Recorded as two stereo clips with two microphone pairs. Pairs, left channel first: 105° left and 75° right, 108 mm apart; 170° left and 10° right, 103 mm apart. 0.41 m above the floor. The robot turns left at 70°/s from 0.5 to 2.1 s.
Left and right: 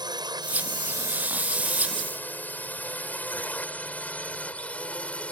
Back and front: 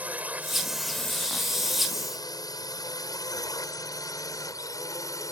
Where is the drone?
80° right; by 5.3 s 175° left.